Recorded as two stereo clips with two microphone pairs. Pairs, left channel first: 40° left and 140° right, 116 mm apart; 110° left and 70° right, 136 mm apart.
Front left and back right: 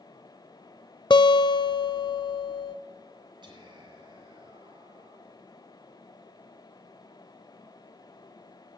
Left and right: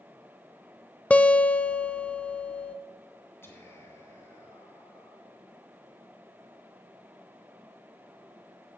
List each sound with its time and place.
1.1 s a guitar: 35° left, 0.5 m
3.4 s whispering: straight behind, 2.5 m